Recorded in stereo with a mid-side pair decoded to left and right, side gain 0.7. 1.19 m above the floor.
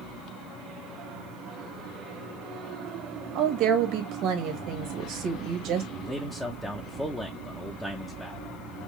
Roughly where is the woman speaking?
Ahead right.